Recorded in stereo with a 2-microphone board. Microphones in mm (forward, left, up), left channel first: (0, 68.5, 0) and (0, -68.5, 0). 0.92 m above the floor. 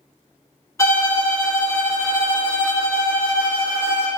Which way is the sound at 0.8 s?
20° left (ahead or behind).